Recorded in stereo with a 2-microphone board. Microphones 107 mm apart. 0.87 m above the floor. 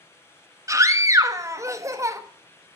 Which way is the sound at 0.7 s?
30° right (ahead or behind).